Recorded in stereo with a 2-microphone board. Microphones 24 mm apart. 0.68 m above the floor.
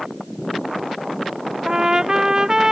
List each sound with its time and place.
1.6 s a trumpet: 30° right (ahead or behind)